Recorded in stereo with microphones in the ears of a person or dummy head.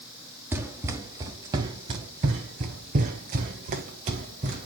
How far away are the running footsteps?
About 1.6 m.